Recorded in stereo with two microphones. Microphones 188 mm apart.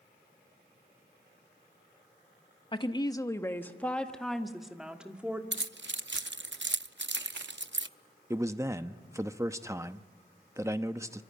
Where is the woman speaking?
25° left (ahead or behind), 1.1 m; by 5.4 s 5° right (ahead or behind), 2 m.